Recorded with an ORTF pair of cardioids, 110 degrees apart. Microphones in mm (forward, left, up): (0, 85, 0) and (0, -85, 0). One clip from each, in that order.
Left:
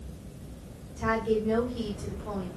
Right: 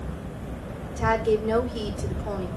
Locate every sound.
1.0 s a woman speaking: 65° right, 3.5 m